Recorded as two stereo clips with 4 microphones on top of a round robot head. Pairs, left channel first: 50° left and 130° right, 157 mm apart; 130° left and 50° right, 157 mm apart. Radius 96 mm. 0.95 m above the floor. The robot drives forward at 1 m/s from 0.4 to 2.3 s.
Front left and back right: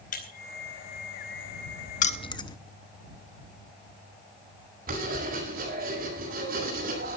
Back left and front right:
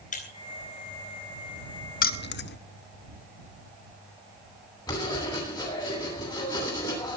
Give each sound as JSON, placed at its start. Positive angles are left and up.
{"t": 0.1, "sound": "breaking glass", "azimuth_deg": 90, "distance_m": 4.0}
{"t": 2.0, "sound": "keys jangling", "azimuth_deg": 95, "distance_m": 0.8}
{"t": 4.9, "sound": "writing", "azimuth_deg": -165, "distance_m": 10.0}